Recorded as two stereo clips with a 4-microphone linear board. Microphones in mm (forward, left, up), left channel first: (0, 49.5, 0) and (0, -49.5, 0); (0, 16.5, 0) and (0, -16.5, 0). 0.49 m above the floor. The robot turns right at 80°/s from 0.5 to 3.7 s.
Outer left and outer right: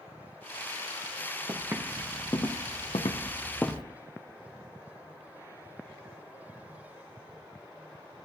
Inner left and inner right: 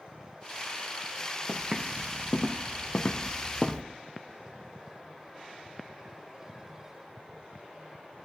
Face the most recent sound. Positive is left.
turn(degrees=0)  # may be behind; listen again after turning